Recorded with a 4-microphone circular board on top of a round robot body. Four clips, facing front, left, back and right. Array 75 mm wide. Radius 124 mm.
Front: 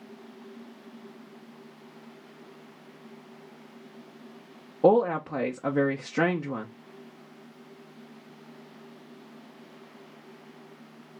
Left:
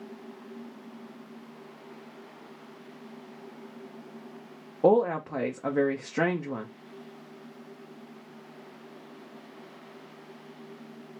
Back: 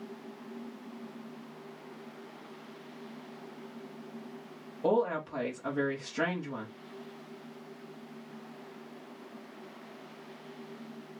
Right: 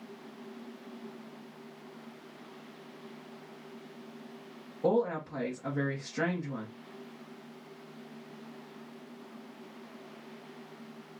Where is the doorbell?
I don't hear a doorbell.